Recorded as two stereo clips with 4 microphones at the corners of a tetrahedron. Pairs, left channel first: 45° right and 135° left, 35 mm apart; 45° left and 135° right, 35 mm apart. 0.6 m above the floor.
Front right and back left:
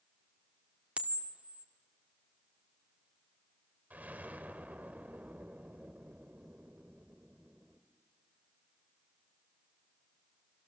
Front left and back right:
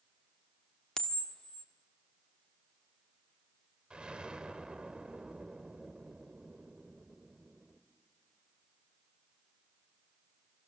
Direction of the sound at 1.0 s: 105° left.